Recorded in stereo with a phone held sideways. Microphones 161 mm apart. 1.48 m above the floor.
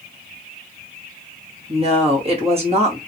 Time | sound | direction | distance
1.7 | a woman speaking | 40° right (ahead or behind) | 1.9 m